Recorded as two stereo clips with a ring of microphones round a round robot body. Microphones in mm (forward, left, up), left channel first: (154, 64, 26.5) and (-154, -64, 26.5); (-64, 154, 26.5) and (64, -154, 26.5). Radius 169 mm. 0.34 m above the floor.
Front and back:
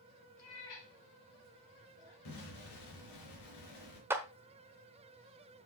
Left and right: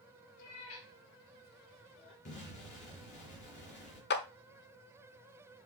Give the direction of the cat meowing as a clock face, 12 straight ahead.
10 o'clock.